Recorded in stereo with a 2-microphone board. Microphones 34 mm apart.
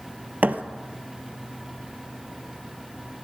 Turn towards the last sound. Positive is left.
turn(degrees=-50)  # may be behind; listen again after turning